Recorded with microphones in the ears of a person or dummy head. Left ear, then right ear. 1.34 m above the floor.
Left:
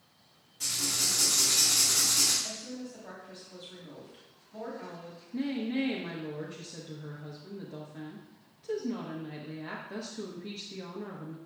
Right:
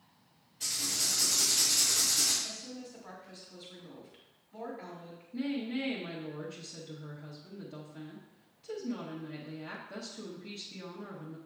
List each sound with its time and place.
0.6 s writing: 40° left (ahead or behind), 3 m
2.4 s a woman speaking: 20° right (ahead or behind), 3 m
5.3 s a woman speaking: 10° left (ahead or behind), 1.0 m